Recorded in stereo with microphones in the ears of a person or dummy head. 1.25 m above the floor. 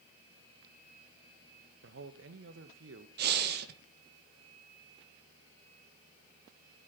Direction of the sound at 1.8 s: 65° right (ahead or behind).